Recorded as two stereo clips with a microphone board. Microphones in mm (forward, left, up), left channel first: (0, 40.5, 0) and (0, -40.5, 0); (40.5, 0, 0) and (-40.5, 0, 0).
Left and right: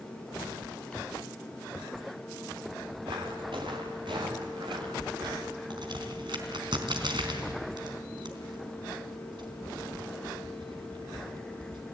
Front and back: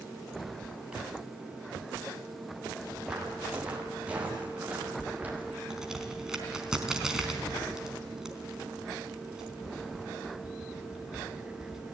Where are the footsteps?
100° right, 6.5 m; by 5.6 s 110° right, 7.5 m.